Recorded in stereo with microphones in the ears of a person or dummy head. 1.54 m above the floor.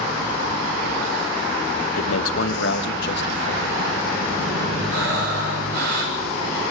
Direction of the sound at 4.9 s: 65° right (ahead or behind).